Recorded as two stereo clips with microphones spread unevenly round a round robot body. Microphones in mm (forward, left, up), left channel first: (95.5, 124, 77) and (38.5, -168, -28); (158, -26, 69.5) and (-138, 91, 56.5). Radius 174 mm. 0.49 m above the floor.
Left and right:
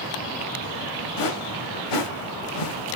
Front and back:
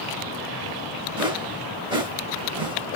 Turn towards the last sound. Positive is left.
turn(degrees=85)